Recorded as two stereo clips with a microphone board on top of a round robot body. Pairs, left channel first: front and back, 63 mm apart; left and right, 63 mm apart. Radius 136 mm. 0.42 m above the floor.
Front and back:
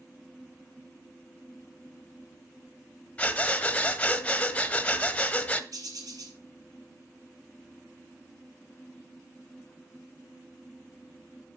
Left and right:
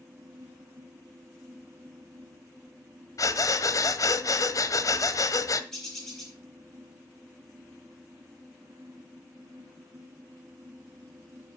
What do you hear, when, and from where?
3.2 s breathing: 70° left, 0.9 m
5.7 s a bird: 175° left, 3 m